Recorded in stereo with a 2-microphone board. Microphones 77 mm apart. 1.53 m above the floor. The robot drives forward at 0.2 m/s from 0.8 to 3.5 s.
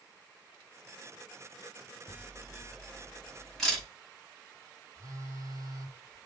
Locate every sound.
2.1 s a camera shutter: 5° left (ahead or behind), 5 m
5.0 s a phone buzzing: 50° right (ahead or behind), 1.8 m